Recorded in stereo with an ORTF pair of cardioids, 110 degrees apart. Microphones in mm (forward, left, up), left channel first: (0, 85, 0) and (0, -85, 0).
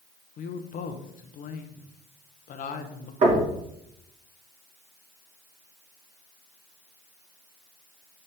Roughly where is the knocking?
Ahead right.